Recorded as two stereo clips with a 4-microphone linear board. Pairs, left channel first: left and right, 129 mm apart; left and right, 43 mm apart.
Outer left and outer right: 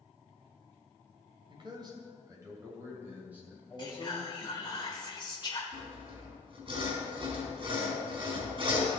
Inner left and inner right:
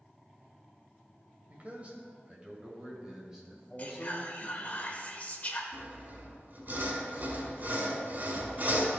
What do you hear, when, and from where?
1.5 s a man speaking: 40° right (ahead or behind), 2 m; by 4.8 s 5° right (ahead or behind), 4 m
3.8 s whispering: 40° left (ahead or behind), 1.3 m
5.7 s sawing: 45° right (ahead or behind), 3.5 m